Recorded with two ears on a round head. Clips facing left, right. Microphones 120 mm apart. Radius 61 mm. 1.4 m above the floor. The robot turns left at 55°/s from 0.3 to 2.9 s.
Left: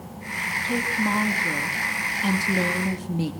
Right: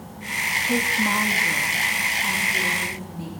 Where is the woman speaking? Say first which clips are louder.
Right 1 dB; 160° right, 2.5 m; by 3.3 s 75° left, 2.5 m.